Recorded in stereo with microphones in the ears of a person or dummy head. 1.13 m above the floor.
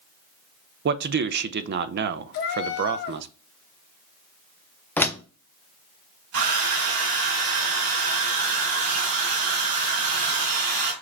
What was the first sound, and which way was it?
A man speaking, 50° right (ahead or behind).